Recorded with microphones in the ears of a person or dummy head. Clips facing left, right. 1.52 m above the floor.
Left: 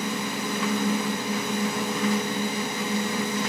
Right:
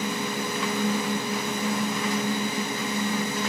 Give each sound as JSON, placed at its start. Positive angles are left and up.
{"t": 0.0, "sound": "a fan", "side_deg": 50, "distance_m": 3.5}